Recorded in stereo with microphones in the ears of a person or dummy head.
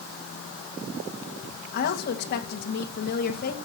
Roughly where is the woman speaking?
Left.